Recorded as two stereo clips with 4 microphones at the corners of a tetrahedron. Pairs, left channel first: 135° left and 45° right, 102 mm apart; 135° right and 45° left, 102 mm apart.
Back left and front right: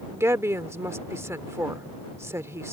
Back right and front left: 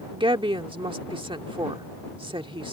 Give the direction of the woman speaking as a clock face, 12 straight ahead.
11 o'clock.